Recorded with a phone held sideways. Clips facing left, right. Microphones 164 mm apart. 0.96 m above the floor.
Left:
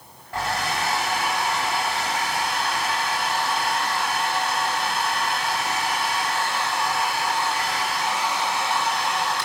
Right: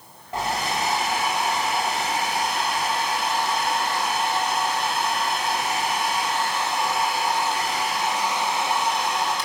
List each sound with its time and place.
0.3 s a hair dryer: 20° right (ahead or behind), 5 m